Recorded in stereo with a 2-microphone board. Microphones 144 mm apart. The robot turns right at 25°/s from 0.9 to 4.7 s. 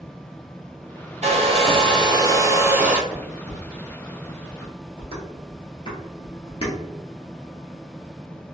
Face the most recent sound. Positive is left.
turn(degrees=40)  # may be behind; listen again after turning